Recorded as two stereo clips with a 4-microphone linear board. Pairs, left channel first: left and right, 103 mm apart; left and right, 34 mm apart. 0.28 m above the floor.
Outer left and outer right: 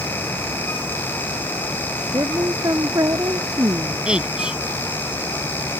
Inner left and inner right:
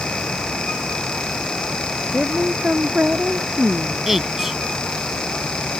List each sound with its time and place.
2.1 s a woman speaking: 35° right (ahead or behind)
4.1 s a woman speaking: 10° right (ahead or behind)